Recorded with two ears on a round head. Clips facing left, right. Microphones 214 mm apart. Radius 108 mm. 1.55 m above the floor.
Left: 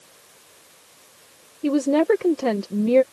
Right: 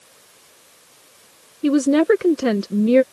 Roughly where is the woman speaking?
Centre.